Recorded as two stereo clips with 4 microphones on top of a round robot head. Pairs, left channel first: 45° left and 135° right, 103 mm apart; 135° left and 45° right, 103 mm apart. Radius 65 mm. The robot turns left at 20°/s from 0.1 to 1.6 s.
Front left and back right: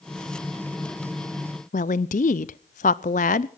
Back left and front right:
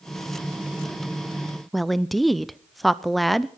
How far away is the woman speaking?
About 0.6 m.